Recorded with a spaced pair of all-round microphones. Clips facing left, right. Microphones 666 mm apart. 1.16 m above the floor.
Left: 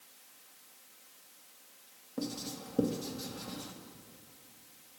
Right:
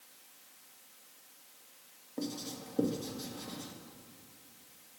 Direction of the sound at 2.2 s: 40° left (ahead or behind).